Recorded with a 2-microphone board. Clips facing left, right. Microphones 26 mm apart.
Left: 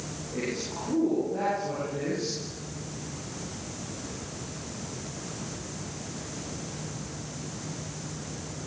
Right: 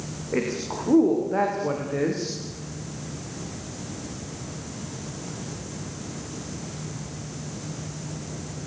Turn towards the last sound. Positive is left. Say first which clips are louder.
# right 6 dB
turn(degrees=-80)